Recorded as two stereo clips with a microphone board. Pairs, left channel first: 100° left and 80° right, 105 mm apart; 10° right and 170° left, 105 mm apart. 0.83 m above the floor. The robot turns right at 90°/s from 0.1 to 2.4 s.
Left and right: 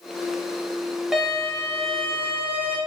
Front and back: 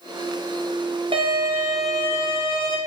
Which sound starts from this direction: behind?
A violin, at 1.1 s.